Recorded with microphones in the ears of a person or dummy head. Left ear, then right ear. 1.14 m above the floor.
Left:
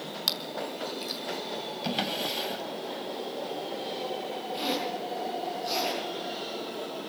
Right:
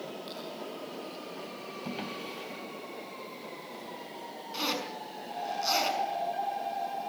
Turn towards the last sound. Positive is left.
turn(degrees=-45)  # may be behind; listen again after turning